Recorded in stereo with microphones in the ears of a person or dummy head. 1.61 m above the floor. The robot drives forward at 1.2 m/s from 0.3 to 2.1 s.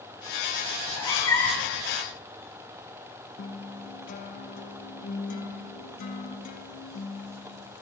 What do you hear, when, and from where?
0.8 s a cat meowing: 20° left (ahead or behind), 1.6 m; by 1.7 s 10° left (ahead or behind), 2.5 m
3.4 s a guitar: 40° left (ahead or behind), 0.6 m